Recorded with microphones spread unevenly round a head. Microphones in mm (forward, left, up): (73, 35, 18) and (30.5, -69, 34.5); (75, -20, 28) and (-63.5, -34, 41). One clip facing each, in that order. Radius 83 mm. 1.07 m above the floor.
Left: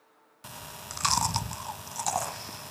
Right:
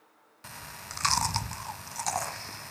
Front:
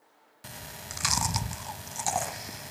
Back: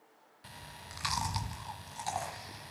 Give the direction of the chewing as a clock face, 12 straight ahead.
12 o'clock.